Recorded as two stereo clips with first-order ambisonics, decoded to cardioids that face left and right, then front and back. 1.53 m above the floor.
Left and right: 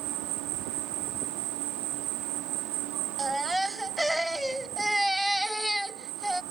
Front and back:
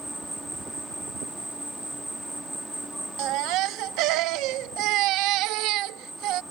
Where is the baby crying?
Straight behind.